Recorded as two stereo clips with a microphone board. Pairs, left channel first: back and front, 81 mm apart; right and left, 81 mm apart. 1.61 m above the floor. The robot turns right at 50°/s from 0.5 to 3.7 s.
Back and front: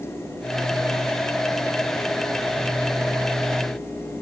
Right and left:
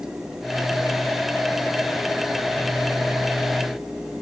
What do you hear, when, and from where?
Only background noise.